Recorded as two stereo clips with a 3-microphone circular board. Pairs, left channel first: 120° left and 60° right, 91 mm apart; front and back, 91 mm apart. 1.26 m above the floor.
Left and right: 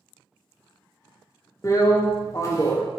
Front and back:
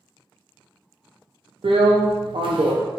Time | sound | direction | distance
1.6 | a drill | 175° left | 0.6 m